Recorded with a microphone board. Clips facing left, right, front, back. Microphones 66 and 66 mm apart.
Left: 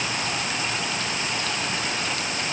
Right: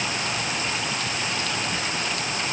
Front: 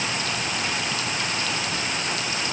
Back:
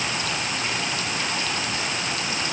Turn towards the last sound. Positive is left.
No sound to turn to.